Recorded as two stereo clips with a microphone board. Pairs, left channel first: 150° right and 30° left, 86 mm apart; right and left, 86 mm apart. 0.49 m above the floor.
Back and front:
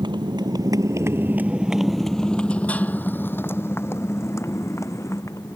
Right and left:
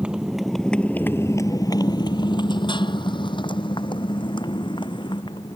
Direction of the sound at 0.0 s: 15° left.